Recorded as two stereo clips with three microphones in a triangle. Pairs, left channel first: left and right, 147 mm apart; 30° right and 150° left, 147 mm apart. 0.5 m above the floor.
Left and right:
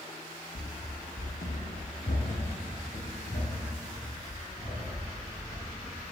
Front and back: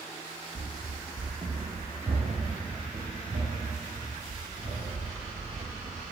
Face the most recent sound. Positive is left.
turn(degrees=125)